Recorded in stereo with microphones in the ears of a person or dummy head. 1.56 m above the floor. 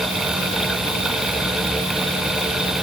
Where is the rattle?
No rattle in this recording.